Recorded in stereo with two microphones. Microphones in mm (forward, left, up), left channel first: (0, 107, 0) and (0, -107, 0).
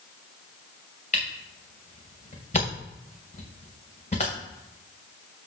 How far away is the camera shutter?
About 2.5 m.